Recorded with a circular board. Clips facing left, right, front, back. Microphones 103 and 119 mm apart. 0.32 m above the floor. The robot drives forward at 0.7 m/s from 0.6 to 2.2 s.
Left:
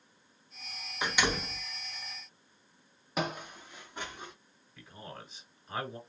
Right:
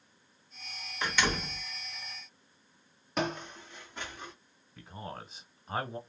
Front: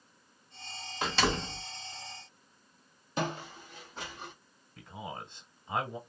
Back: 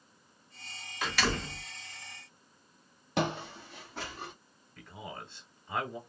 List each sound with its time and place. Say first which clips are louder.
1.0 s a door slam: even, front 2 dB; 25° left, 1.0 m; by 1.6 s 70° left, 0.9 m
3.2 s footsteps: right 2 dB, back 3 dB; 175° left, 0.7 m; by 4.3 s 165° left, 1.6 m
4.8 s a man speaking: right 4 dB, front 2 dB; 55° right, 1.0 m